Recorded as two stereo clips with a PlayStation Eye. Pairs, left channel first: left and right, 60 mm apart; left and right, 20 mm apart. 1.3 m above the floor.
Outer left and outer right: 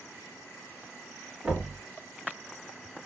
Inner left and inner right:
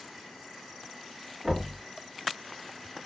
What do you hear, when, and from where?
1.4 s knocking: 15° right (ahead or behind), 1.5 m